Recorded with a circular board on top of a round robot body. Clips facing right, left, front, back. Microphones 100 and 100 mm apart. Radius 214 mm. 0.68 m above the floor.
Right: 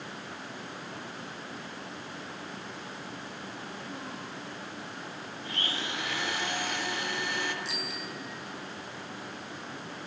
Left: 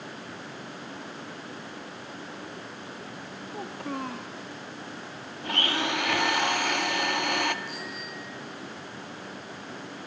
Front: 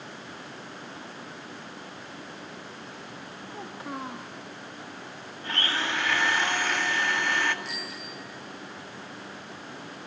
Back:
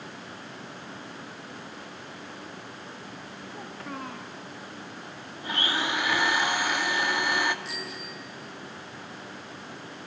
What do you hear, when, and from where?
3.5 s a child speaking: 75° left, 1.4 m
5.4 s a blender: 100° left, 1.8 m
7.7 s a bicycle bell: 90° right, 9.5 m